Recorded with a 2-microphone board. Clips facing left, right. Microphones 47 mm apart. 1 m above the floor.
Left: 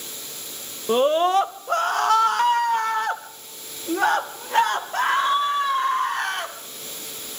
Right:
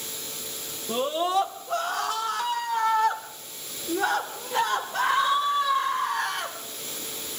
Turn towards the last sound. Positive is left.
turn(degrees=55)  # may be behind; listen again after turning